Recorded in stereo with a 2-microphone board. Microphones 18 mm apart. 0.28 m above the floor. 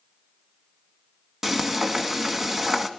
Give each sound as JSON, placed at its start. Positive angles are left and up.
{"t": 1.4, "sound": "frying", "side_deg": -20, "distance_m": 2.0}